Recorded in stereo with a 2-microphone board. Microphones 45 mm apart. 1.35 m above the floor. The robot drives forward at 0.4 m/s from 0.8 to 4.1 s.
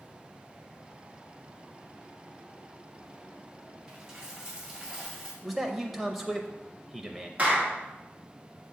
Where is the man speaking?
5° right (ahead or behind), 0.5 m.